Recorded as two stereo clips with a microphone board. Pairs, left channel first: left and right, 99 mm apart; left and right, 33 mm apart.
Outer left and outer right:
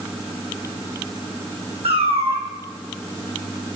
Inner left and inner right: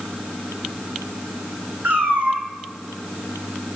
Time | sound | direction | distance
1.8 | a cat meowing | 80° right | 1.7 m